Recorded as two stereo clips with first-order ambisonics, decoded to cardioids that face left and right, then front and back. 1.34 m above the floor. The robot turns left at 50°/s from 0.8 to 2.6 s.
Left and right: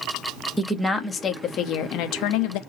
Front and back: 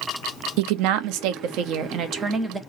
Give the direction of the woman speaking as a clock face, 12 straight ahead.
6 o'clock.